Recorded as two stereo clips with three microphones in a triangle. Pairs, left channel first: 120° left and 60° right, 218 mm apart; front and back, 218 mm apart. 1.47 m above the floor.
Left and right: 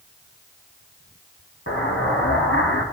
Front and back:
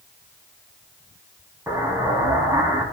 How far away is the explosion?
About 2.5 m.